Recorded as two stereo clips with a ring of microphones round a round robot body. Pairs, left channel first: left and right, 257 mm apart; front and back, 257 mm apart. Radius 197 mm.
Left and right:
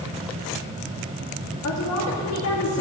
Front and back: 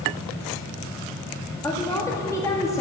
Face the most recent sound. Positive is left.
turn(degrees=80)